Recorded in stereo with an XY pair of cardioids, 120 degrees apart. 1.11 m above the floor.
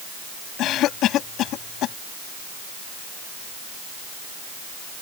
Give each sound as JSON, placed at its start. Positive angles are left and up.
{"t": 0.6, "sound": "a cough", "azimuth_deg": 70}